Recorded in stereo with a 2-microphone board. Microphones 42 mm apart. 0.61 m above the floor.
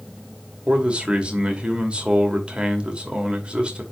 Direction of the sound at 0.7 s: 25° right (ahead or behind).